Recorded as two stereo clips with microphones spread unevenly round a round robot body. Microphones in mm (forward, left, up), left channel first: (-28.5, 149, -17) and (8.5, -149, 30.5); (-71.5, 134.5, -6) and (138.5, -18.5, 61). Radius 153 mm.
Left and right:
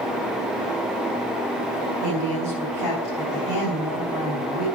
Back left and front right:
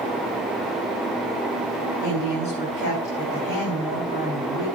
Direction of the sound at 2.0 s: 95° left.